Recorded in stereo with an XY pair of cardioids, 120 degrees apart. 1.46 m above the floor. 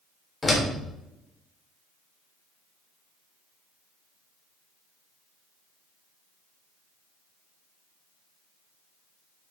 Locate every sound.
0.4 s a door slam: 10° left, 3 m